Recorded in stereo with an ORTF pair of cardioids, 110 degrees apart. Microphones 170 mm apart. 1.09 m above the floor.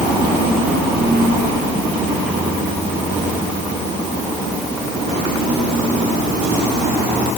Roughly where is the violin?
No violin in this recording.